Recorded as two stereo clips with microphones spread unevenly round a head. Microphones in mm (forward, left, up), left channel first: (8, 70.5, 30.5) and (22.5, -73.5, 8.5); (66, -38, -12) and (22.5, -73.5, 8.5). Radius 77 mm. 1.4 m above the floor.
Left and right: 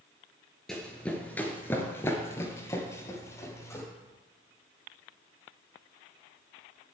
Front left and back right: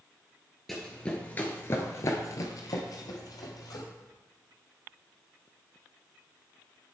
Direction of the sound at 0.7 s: 165° left.